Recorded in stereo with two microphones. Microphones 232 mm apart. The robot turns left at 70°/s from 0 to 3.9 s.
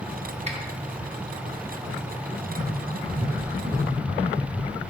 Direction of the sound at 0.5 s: 25° right (ahead or behind).